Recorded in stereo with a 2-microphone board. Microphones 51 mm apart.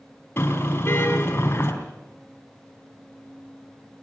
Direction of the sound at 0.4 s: 50° left (ahead or behind).